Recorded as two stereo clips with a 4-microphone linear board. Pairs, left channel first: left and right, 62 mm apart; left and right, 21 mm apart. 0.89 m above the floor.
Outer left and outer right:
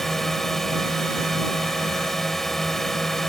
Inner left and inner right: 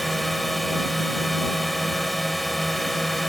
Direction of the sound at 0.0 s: 5° left (ahead or behind).